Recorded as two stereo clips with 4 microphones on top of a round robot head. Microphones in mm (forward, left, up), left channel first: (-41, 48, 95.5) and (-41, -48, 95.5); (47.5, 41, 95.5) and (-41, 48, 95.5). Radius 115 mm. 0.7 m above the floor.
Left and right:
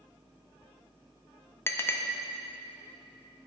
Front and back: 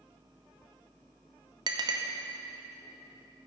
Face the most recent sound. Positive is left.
turn(degrees=150)